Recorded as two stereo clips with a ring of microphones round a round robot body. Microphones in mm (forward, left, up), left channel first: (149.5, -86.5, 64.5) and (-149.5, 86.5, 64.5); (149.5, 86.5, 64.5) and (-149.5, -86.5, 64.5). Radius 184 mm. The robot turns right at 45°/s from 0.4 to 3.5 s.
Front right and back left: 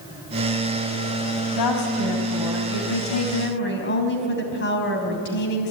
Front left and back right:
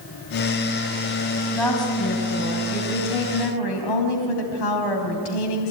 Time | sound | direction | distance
1.5 | a woman speaking | 60° right | 3.5 m